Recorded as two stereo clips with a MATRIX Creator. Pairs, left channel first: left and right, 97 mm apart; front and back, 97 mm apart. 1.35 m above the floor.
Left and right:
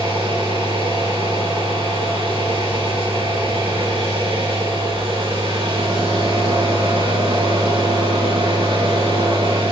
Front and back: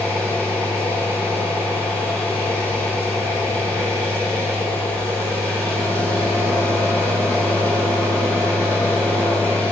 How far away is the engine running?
About 6.5 m.